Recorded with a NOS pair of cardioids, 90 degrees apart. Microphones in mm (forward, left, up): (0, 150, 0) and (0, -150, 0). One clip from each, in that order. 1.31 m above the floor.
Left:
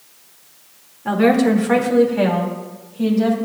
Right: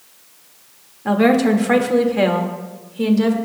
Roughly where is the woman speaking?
Ahead.